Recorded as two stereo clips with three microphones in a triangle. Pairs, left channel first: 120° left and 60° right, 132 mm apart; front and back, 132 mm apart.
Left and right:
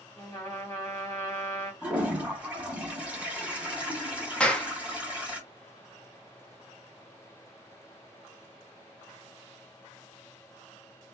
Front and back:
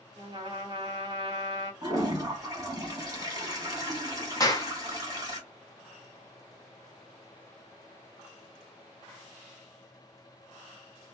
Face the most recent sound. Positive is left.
turn(degrees=40)